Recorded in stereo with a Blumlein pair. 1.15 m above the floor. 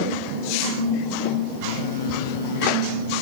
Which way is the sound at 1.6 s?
60° left.